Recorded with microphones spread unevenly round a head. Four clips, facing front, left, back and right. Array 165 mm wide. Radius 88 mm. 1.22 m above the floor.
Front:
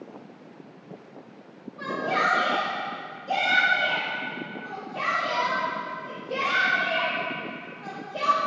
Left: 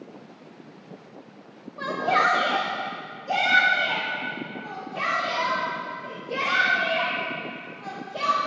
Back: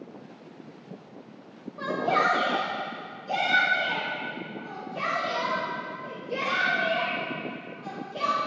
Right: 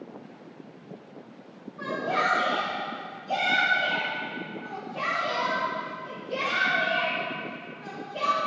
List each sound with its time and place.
1.8 s a shout: 115° left, 1.2 m; by 8.4 s 45° left, 9 m